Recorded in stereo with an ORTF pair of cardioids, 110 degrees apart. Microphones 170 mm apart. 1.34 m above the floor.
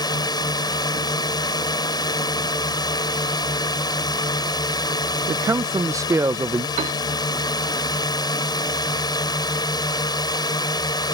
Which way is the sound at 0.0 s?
25° left.